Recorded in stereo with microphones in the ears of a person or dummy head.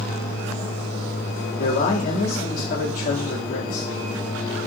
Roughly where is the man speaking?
Left.